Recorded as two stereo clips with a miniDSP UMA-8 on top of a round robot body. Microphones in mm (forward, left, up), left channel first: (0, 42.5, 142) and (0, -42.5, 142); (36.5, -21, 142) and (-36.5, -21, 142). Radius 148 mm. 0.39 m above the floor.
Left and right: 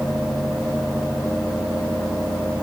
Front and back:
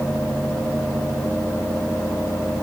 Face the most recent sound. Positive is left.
No sound to turn to.